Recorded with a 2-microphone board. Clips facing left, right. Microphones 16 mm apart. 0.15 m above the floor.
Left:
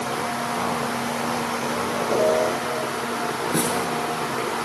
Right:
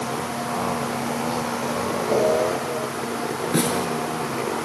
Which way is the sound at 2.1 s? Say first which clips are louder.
Even; 40° right (ahead or behind).